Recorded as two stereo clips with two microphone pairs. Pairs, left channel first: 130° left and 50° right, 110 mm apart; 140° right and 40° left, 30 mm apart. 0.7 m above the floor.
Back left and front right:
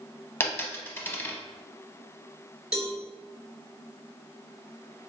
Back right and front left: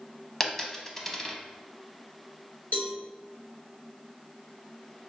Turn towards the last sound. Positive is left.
turn(degrees=-135)